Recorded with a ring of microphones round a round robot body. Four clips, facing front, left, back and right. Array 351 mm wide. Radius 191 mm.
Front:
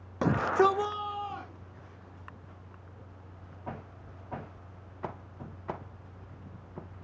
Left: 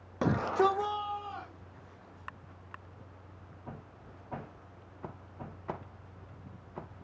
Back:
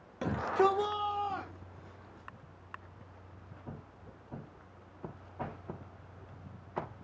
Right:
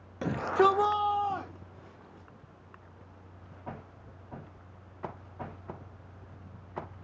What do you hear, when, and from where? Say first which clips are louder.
0.2 s a shout: right 2 dB, front 4 dB; 30° left, 0.8 m; by 2.3 s 110° right, 2 m